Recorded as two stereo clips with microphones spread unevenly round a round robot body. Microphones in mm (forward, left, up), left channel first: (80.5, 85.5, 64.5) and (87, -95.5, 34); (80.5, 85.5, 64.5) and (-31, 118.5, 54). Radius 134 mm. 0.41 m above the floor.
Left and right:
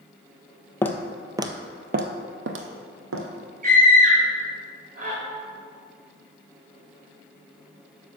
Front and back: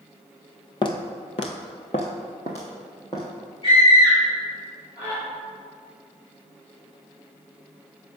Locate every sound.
0.8 s footsteps: 20° left, 0.7 m; by 3.2 s 90° right, 1.2 m
3.6 s a scream: 60° right, 2.0 m